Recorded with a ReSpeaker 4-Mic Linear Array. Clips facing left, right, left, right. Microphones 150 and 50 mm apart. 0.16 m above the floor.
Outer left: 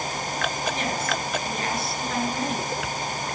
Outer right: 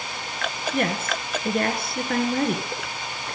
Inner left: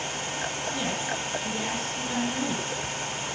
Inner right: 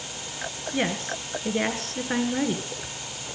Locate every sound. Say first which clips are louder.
0.7 s a woman speaking: outer right 2 dB, inner right 7 dB; 60° right (ahead or behind), 2 m